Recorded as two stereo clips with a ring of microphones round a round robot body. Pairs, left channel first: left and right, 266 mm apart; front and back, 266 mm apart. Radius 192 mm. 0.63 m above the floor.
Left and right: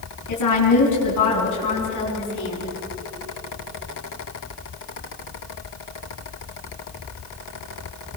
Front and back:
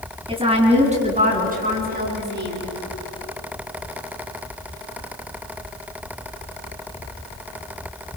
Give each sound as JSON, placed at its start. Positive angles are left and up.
{"t": 0.3, "sound": "a woman speaking", "azimuth_deg": 110, "distance_m": 7.5}